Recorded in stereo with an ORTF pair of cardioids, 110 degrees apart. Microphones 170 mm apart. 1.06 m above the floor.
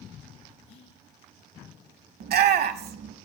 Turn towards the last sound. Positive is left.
turn(degrees=-65)